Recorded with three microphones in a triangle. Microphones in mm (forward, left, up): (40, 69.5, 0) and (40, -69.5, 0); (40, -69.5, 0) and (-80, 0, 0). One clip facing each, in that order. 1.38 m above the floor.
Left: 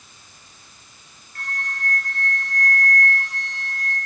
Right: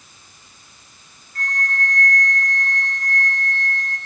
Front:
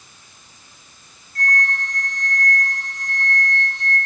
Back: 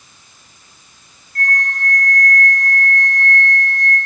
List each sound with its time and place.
1.4 s a flute: 175° left, 5 m